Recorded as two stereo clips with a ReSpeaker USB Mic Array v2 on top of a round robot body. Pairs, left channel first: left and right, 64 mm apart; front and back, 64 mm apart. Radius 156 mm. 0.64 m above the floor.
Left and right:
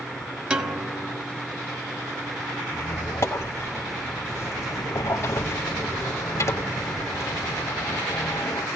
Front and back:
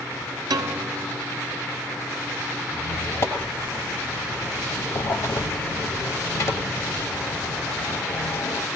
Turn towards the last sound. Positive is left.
turn(degrees=40)